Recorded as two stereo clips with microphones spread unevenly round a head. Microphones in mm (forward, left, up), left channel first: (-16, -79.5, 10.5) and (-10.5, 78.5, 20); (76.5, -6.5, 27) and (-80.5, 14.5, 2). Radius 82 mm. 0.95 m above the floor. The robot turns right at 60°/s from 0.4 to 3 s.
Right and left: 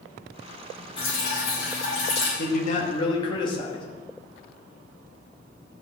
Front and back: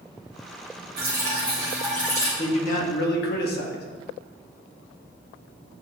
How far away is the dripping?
About 5 m.